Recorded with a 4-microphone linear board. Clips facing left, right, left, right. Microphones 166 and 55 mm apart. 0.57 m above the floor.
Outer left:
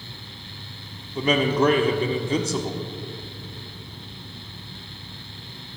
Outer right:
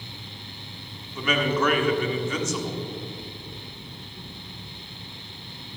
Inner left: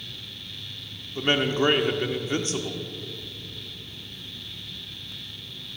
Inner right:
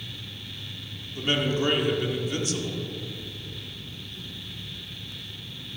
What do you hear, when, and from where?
1.1 s a man speaking: 35° left (ahead or behind), 1.3 m